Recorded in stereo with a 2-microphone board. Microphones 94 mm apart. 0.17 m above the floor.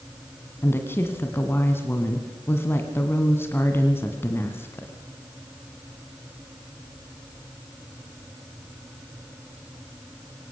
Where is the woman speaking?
25° left (ahead or behind), 1.9 m.